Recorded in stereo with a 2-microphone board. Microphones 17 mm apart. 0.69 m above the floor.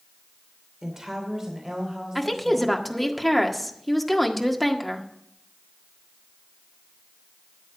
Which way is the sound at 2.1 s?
10° left (ahead or behind).